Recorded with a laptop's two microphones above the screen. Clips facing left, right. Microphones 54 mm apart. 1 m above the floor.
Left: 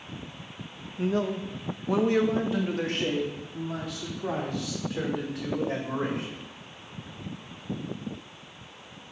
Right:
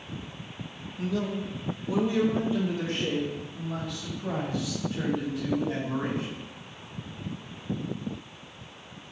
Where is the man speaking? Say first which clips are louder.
Left 3 dB; 30° left (ahead or behind), 0.7 m; by 6.4 s 85° left, 3.5 m.